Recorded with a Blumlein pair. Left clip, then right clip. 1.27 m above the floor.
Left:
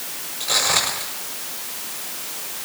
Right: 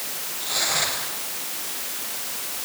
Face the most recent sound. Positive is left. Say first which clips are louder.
# left 4 dB
turn(degrees=65)